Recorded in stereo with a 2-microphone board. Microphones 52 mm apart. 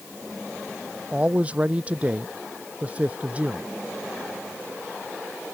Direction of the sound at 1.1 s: 25° right (ahead or behind).